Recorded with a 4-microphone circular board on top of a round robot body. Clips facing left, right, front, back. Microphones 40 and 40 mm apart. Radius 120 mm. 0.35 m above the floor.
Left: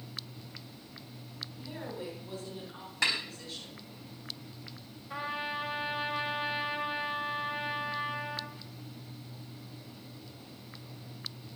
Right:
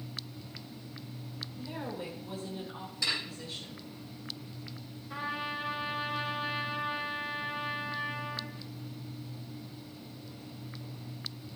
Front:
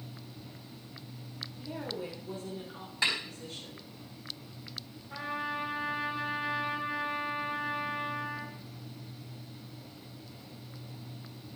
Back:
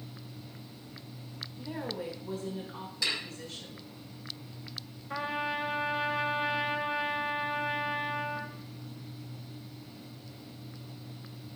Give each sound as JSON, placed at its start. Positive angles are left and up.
{"t": 1.6, "sound": "a woman speaking", "azimuth_deg": -175, "distance_m": 8.5}
{"t": 3.0, "sound": "a snare drum", "azimuth_deg": 55, "distance_m": 4.5}
{"t": 5.1, "sound": "a trumpet", "azimuth_deg": 165, "distance_m": 1.9}